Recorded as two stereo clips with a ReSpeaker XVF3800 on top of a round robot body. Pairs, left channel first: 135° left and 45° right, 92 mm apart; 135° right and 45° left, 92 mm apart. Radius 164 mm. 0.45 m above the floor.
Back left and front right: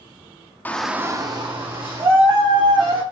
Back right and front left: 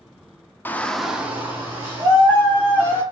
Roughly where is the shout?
Behind.